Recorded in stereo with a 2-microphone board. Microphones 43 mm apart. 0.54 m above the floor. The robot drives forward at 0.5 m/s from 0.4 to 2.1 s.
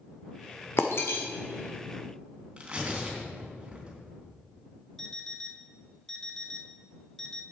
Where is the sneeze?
I don't hear a sneeze.